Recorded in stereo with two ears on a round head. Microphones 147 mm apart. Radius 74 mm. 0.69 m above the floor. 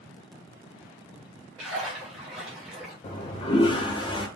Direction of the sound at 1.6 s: 5° right (ahead or behind).